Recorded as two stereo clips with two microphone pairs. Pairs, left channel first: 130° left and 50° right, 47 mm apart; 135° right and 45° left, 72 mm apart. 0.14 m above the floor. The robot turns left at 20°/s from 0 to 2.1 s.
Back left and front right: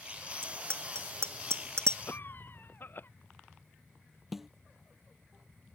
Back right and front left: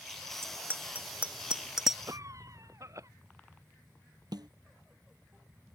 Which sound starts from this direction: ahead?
A bicycle bell, at 0.4 s.